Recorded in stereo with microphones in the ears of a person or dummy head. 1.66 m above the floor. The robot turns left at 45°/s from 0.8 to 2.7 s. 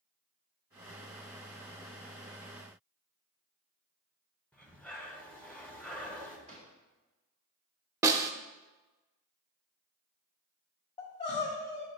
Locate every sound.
4.5 s breathing: 5° left (ahead or behind), 0.9 m
6.5 s a drawer: 35° right (ahead or behind), 2.5 m
8.0 s a snare drum: 15° right (ahead or behind), 0.5 m
11.0 s crying: 30° left (ahead or behind), 1.6 m